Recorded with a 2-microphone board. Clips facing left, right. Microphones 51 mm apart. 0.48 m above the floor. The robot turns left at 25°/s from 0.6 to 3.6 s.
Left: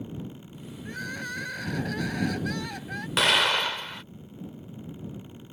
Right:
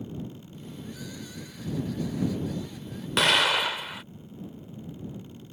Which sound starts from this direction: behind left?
Crying, at 0.8 s.